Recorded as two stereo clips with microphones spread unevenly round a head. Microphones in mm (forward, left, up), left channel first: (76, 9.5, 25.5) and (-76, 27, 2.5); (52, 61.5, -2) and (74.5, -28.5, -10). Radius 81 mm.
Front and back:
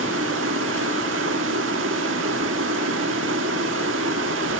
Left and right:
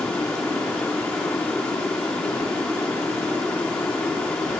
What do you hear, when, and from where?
0.0 s running water: 175° right, 1.2 m